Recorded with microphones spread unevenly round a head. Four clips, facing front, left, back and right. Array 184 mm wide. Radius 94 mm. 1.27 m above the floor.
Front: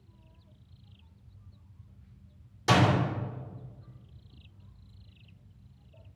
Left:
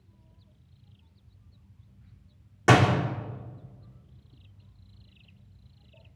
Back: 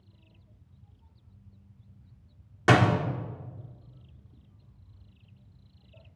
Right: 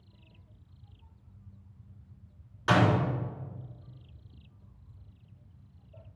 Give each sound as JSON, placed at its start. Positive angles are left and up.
{"t": 2.7, "sound": "a door slam", "azimuth_deg": 125, "distance_m": 2.0}